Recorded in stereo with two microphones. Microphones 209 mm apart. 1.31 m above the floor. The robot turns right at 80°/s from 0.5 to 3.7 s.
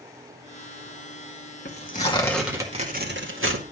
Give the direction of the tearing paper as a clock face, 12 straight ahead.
8 o'clock.